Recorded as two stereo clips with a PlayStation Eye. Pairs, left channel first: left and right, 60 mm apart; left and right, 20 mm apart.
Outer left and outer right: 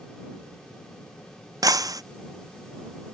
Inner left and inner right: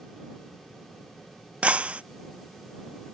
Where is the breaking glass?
80° right.